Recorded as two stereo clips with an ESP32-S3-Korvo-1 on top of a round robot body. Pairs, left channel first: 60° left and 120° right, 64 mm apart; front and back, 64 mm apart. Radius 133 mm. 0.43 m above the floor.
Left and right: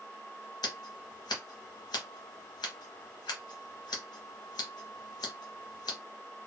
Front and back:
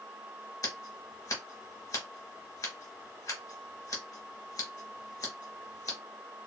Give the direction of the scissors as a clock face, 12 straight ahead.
11 o'clock.